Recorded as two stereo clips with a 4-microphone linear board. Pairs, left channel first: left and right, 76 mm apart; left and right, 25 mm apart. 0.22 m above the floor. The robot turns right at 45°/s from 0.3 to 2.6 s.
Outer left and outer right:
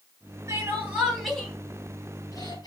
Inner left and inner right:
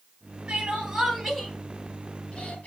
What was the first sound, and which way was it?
Crying, 35° right (ahead or behind).